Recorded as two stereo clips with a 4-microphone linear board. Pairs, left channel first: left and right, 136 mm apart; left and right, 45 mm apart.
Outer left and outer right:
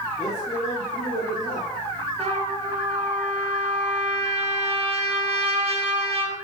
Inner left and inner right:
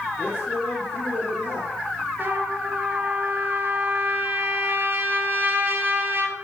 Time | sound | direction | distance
0.2 | a man speaking | 45° left (ahead or behind) | 3 m
2.2 | a trumpet | 45° right (ahead or behind) | 3.5 m